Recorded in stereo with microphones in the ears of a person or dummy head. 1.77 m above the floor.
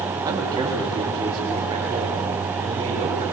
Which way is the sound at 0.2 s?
25° right (ahead or behind).